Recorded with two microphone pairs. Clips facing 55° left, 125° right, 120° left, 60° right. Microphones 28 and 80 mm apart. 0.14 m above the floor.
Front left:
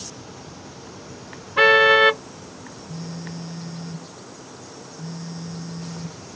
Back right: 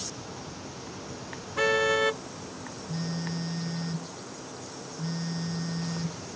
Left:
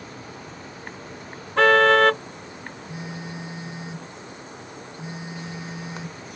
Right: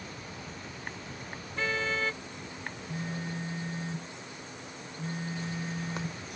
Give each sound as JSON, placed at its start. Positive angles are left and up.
{"t": 1.6, "sound": "a car horn", "azimuth_deg": 100}
{"t": 2.9, "sound": "a phone buzzing", "azimuth_deg": -170}